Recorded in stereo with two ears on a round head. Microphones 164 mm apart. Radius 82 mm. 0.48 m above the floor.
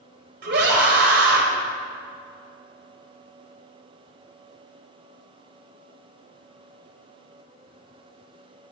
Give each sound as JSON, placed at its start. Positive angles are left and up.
{"t": 0.4, "sound": "a scream", "side_deg": -60, "distance_m": 3.0}